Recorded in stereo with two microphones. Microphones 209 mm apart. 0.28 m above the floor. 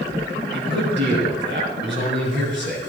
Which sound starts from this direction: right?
A man speaking, at 0.5 s.